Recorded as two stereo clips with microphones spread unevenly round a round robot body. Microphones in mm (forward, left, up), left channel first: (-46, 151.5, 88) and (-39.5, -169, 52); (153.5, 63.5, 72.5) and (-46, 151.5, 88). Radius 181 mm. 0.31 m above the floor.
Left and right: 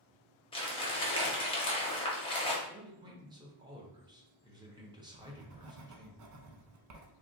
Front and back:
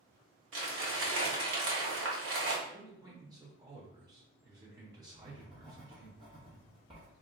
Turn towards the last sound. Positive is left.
turn(degrees=-130)